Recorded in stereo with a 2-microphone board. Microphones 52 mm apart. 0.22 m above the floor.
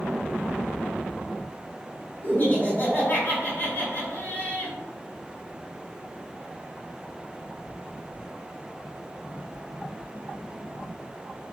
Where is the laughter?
40° left (ahead or behind), 1.6 m.